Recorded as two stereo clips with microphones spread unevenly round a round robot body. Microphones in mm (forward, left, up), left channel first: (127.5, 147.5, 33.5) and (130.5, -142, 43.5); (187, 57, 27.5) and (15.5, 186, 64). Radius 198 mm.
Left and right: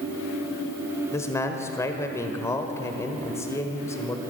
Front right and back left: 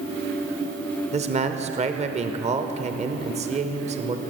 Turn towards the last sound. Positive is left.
turn(degrees=145)